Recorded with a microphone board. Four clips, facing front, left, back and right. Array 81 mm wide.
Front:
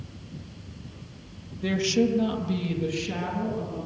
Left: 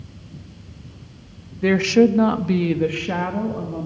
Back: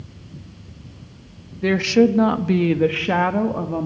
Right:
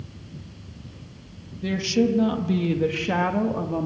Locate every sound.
1.6 s a woman speaking: 120° left, 1.7 m; by 3.9 s 155° right, 2 m